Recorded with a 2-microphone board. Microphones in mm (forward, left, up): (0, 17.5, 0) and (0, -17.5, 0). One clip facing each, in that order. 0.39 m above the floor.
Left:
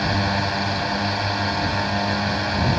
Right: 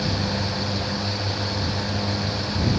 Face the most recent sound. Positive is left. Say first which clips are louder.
# left 4 dB
turn(degrees=45)  # may be behind; listen again after turning